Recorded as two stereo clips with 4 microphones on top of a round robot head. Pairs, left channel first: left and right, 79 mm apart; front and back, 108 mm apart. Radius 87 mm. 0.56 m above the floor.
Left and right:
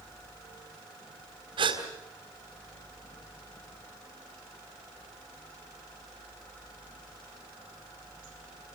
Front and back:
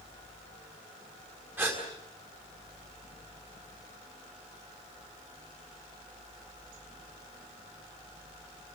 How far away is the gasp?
About 4 m.